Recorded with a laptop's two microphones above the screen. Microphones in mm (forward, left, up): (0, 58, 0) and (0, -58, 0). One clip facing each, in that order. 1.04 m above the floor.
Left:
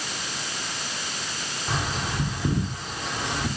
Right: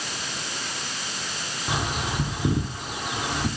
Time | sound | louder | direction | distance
1.7 | a bird | right 1 dB | 10° right (ahead or behind) | 2.5 m